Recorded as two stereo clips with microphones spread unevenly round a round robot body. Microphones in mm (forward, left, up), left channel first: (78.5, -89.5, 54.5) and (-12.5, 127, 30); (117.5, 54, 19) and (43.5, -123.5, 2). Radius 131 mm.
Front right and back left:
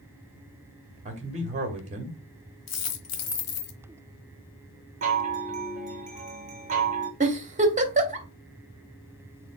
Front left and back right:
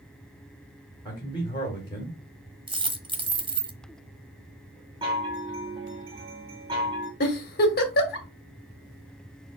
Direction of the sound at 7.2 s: 80° left.